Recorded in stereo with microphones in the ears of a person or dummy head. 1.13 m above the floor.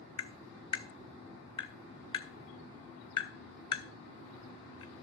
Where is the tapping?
30° left (ahead or behind), 1.3 m.